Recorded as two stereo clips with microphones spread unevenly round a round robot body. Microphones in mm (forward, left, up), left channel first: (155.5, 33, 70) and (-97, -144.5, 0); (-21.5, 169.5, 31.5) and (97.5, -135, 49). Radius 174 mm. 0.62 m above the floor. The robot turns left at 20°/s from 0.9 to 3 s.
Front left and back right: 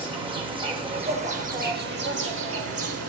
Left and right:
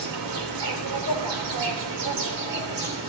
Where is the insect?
80° right, 3.5 m; by 3.1 s 120° right, 3.5 m.